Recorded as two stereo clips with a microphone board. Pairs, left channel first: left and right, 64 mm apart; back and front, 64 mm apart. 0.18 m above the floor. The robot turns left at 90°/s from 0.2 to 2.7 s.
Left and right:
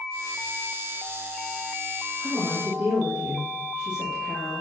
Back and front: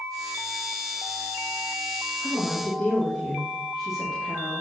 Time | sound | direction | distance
2.2 | a woman speaking | 55° right | 2.5 m